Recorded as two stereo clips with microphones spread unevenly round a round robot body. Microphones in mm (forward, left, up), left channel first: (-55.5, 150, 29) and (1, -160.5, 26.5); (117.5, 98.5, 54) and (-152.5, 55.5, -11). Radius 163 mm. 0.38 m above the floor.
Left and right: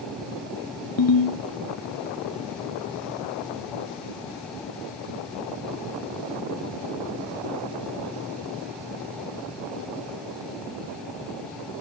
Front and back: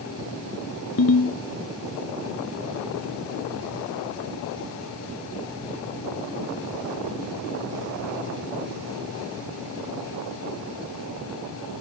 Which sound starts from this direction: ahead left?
A ringtone, at 1.0 s.